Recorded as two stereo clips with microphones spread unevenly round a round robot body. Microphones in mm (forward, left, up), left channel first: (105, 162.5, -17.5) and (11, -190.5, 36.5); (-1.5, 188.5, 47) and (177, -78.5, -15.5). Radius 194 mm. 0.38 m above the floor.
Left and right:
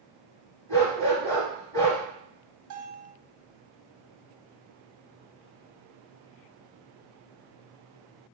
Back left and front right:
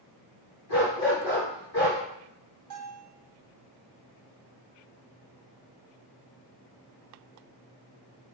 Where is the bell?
60° right, 1.4 m.